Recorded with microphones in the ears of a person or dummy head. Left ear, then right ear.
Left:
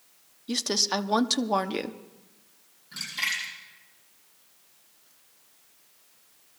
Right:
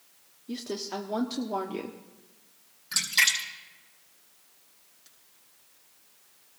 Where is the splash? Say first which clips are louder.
Right 6 dB; 75° right (ahead or behind), 4 m.